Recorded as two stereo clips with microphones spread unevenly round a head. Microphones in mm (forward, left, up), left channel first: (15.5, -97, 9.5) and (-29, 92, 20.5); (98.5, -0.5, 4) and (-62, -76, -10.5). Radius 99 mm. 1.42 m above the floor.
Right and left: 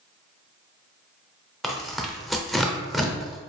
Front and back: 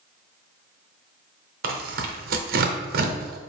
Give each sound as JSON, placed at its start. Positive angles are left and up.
{"t": 1.6, "sound": "tearing paper", "azimuth_deg": -165, "distance_m": 0.6}